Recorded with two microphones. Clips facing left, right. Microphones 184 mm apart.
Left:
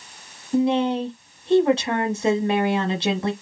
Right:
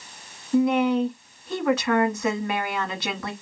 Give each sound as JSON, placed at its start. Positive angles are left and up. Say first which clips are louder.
{"t": 0.5, "sound": "a woman speaking", "louder": "even", "side_deg": 30, "distance_m": 1.1}